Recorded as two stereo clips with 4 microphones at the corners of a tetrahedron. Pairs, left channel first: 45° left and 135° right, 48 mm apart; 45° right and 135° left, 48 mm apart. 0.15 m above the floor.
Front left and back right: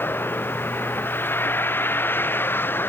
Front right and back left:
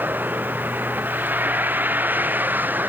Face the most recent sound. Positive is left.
turn(degrees=85)